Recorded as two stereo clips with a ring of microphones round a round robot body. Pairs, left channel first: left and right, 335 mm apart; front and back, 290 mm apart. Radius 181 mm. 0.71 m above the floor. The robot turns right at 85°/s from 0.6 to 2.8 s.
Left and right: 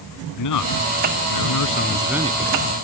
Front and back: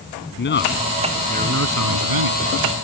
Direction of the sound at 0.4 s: 55° left.